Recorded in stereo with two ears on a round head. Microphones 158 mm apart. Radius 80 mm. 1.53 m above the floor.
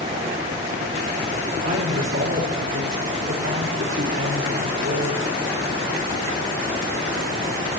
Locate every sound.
1.6 s a woman speaking: 75° right (ahead or behind), 5 m